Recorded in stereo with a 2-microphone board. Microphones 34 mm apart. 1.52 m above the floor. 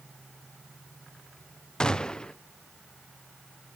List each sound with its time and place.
1.8 s a gunshot: 20° left (ahead or behind), 0.5 m